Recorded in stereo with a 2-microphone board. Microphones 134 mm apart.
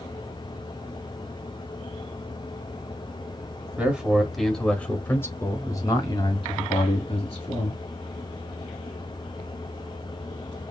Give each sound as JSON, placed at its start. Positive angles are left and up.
{"t": 3.8, "sound": "a man speaking", "side_deg": -10, "distance_m": 1.5}